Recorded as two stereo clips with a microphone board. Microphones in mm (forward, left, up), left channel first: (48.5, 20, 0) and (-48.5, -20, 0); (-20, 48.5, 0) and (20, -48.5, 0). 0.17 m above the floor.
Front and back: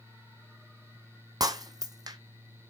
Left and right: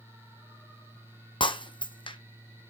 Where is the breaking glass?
150° left, 0.6 m.